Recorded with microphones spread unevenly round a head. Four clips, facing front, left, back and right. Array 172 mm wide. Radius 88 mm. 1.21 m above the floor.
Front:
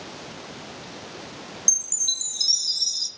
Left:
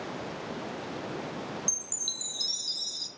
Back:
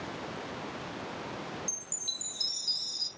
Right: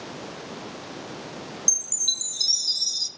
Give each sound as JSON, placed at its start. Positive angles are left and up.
{"t": 1.7, "sound": "a chime", "azimuth_deg": -95, "distance_m": 0.7}